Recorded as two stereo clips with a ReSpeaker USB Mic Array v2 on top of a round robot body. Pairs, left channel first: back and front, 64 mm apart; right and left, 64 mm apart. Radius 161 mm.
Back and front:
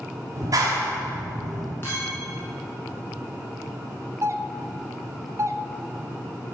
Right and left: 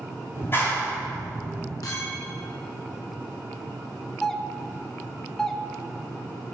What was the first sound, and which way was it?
A clap, 35° right.